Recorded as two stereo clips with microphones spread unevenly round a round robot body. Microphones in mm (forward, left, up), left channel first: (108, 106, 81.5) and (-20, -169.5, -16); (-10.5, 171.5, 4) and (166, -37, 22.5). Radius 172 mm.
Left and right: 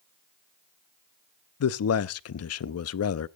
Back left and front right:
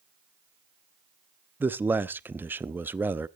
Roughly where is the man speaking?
Ahead left.